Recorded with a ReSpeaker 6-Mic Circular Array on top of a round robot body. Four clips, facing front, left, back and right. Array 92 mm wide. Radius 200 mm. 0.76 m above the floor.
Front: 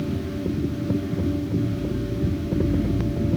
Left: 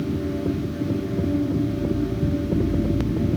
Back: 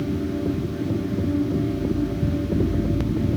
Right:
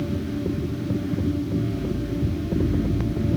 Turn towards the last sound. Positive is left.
No sound to turn to.